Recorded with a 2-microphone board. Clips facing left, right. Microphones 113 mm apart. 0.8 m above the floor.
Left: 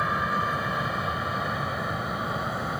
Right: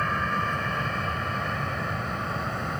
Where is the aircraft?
10° left (ahead or behind).